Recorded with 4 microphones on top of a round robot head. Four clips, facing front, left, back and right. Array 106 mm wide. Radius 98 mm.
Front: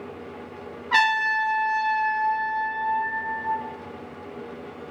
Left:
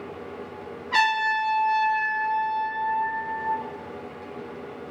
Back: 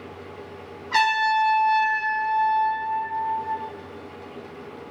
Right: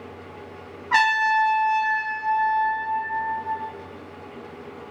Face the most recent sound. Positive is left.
turn(degrees=-60)